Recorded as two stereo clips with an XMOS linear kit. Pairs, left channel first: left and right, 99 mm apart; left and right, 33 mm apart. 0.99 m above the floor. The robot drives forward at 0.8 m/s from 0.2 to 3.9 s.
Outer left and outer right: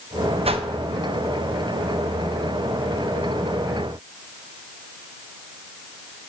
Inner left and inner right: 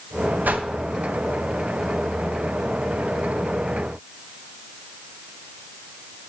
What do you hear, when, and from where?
0.5 s a whoosh: 80° right, 0.5 m; by 0.7 s 70° right (ahead or behind), 0.6 m